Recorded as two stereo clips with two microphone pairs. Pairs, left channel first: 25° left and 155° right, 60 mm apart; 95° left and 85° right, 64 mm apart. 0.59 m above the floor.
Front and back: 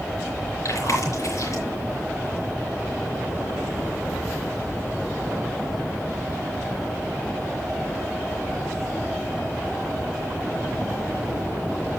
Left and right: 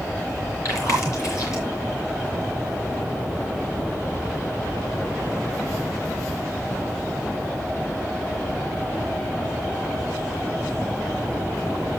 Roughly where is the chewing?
Ahead left.